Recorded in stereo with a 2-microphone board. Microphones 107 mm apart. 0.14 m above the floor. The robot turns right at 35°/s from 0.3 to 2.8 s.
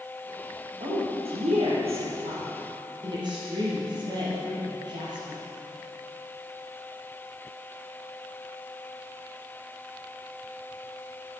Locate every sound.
0.8 s a woman speaking: 55° right (ahead or behind), 4.5 m; by 5.4 s 45° right (ahead or behind), 4.5 m